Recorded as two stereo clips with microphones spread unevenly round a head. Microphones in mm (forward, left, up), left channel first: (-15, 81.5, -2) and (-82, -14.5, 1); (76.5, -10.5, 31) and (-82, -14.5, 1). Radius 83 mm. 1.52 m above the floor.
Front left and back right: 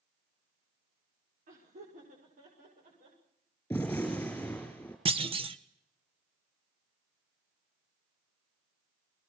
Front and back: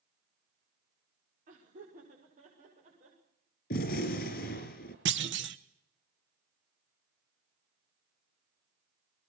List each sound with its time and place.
1.5 s laughter: 135° right, 5.5 m; by 3.2 s 130° right, 7.5 m
3.7 s a gunshot: 25° right, 4 m
5.0 s a clunk: 170° right, 1.4 m